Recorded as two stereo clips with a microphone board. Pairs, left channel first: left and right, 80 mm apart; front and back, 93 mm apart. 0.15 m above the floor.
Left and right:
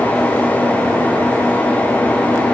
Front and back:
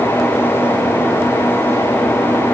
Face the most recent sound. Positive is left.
No sound to turn to.